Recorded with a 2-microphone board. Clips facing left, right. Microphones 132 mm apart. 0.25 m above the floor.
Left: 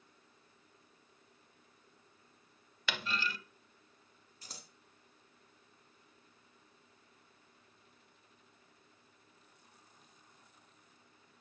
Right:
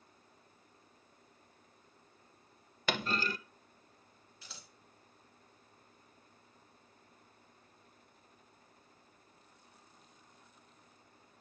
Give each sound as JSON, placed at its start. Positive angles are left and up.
{"t": 2.9, "sound": "a clunk", "side_deg": -45, "distance_m": 0.6}
{"t": 4.4, "sound": "scissors", "side_deg": 40, "distance_m": 1.6}